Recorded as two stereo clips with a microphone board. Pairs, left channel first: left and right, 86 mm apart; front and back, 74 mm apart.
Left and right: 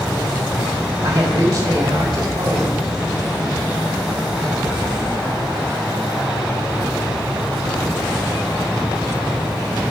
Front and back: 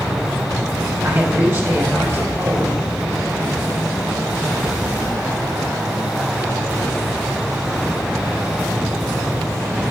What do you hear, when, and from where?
1.0 s a man speaking: 130° right, 5 m